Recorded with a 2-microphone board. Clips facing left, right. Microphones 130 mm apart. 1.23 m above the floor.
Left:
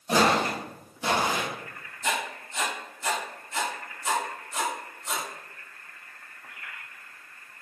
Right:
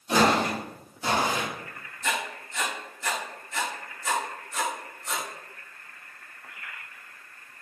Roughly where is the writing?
Left.